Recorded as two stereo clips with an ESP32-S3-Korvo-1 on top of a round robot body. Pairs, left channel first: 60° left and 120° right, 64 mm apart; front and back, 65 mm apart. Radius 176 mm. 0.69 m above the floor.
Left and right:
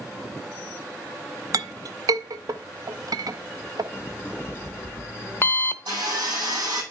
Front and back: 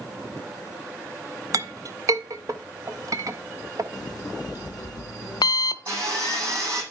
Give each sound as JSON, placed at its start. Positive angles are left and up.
{"t": 1.5, "sound": "a clink", "azimuth_deg": -145, "distance_m": 0.8}
{"t": 3.9, "sound": "an alarm clock", "azimuth_deg": 5, "distance_m": 0.6}
{"t": 5.9, "sound": "sawing", "azimuth_deg": -135, "distance_m": 7.5}